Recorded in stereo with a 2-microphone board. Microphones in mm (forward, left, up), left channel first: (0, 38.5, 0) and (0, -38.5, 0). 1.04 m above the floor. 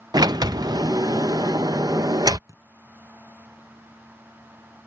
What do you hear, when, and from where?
0.1 s a sliding door: 65° right (ahead or behind)
2.5 s a thud: 50° right (ahead or behind)